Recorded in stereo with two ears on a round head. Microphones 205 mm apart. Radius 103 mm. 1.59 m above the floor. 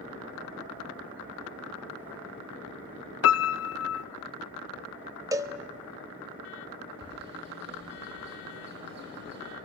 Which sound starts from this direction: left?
A piano, at 3.2 s.